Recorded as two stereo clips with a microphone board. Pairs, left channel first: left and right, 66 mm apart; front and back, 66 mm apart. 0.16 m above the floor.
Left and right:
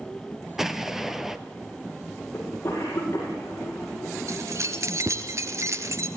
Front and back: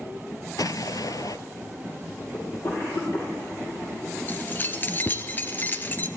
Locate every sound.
0.6 s an explosion: 5° right, 1.1 m
2.3 s a cough: 35° left, 8 m
4.3 s keys jangling: 60° right, 1.9 m